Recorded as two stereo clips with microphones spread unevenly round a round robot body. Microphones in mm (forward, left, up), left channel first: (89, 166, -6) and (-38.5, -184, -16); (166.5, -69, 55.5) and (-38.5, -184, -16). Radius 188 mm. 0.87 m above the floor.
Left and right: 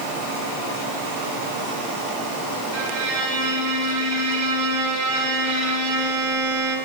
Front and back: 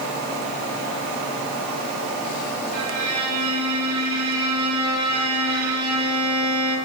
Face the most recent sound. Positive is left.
turn(degrees=-165)